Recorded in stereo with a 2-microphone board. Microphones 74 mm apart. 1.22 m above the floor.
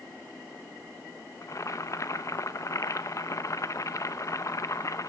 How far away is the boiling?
About 0.6 m.